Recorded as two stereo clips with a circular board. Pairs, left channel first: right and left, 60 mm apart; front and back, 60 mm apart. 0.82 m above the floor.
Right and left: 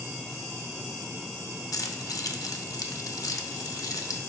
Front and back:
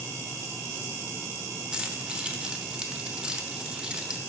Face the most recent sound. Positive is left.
turn(degrees=-105)